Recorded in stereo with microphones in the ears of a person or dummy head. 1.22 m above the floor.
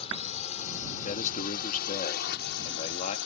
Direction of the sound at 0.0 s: 35° left (ahead or behind).